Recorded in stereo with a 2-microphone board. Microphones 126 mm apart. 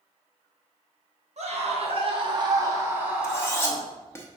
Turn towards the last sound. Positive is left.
turn(degrees=20)  # may be behind; listen again after turning